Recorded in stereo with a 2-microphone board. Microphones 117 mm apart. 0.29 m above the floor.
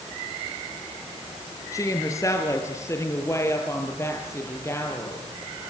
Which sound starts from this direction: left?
A woman speaking, at 1.7 s.